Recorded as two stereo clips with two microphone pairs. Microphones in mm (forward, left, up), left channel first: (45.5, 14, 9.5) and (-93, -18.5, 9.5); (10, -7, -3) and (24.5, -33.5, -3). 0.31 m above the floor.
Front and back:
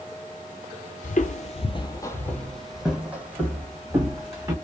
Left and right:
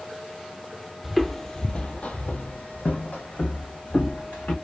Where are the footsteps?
20° left, 0.6 m; by 4.5 s 125° left, 1.6 m.